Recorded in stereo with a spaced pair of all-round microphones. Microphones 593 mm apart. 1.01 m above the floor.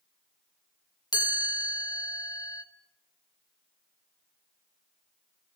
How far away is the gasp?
No gasp in this recording.